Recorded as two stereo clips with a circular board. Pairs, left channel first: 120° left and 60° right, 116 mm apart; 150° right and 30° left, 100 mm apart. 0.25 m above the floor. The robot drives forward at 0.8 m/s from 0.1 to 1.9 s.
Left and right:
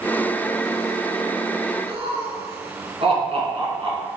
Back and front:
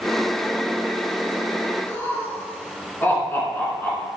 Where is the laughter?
85° right, 2.5 m.